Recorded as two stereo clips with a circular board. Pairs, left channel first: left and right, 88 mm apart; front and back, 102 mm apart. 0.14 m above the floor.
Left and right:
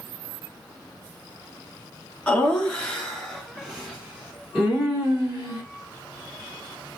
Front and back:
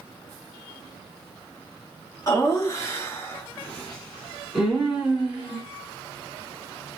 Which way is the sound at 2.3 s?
20° left.